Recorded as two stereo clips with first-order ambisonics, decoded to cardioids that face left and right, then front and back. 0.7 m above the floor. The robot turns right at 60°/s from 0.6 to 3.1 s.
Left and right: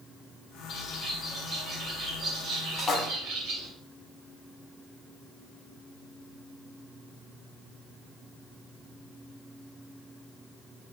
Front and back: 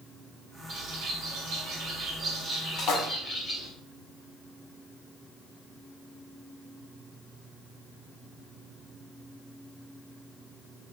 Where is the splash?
25° left, 0.6 m; by 3.0 s 40° left, 0.6 m.